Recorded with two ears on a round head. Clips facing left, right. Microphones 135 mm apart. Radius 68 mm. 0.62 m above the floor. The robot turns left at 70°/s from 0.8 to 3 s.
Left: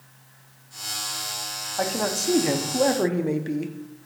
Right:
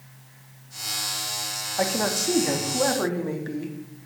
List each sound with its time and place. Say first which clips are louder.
1.8 s a man speaking: right 1 dB; 5° right (ahead or behind), 0.5 m; by 3.8 s 25° left (ahead or behind), 0.5 m